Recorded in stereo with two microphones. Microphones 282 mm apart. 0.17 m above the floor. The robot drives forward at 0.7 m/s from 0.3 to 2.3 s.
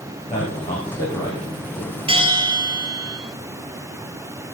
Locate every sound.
0.3 s a man speaking: 20° left (ahead or behind), 8 m; by 2.0 s 25° left (ahead or behind), 7 m
2.1 s a bell: 20° right (ahead or behind), 1.6 m; by 3.2 s 15° right (ahead or behind), 1.8 m